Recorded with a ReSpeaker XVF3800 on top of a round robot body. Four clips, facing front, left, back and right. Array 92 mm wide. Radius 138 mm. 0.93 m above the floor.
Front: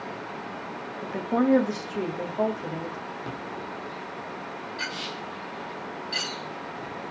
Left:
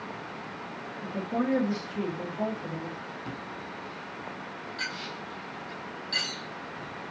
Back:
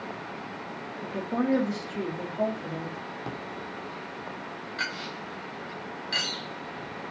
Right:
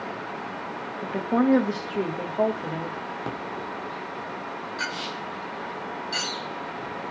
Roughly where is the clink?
Behind.